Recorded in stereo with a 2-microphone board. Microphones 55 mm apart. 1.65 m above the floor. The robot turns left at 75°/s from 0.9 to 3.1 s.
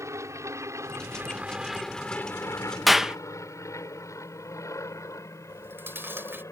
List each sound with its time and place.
0.0 s an aircraft: 70° right (ahead or behind); by 6.5 s 70° left (ahead or behind)
2.9 s a clap: centre (ahead or behind); by 3.2 s 10° right (ahead or behind)
5.5 s chewing: 40° right (ahead or behind)